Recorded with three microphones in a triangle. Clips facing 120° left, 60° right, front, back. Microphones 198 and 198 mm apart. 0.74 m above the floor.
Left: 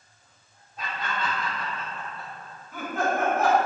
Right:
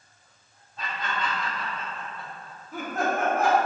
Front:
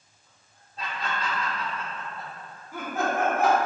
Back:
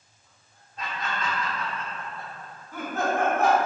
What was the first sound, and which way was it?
Laughter, 50° left.